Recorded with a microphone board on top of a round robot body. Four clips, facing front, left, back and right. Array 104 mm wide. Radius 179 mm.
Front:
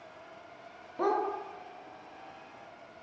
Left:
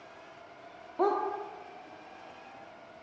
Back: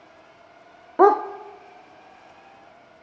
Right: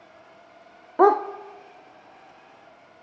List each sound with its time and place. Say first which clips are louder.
1.0 s a dog barking: right 11 dB, back 14 dB; 145° right, 0.9 m